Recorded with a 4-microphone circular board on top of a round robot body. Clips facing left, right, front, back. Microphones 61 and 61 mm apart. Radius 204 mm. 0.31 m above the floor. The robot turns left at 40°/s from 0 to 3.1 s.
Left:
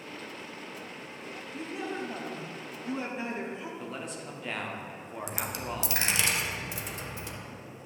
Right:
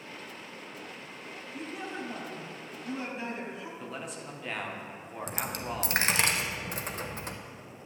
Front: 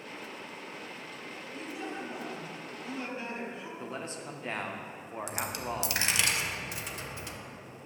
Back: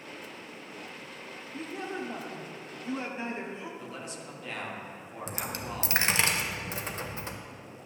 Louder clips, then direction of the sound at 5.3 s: Right 1 dB, front 1 dB; 130° right.